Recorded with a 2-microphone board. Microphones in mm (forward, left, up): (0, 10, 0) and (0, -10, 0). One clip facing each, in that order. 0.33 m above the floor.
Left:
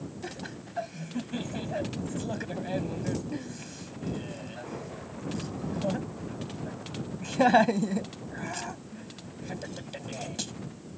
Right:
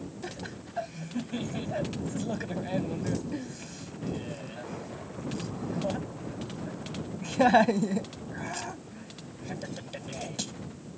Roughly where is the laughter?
Centre.